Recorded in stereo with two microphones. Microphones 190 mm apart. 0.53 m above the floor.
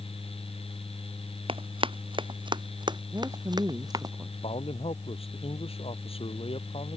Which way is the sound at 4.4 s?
30° left (ahead or behind).